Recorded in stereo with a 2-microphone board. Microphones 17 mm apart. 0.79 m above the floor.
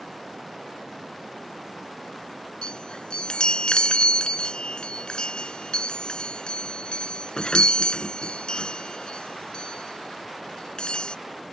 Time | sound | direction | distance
2.6 | a chime | 70° left (ahead or behind) | ?